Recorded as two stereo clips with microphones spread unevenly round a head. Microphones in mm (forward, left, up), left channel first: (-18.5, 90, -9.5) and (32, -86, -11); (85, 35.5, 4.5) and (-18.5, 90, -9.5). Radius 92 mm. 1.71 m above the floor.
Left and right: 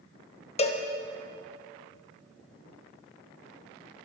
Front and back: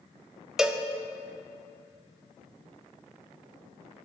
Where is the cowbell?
60° left, 0.9 m.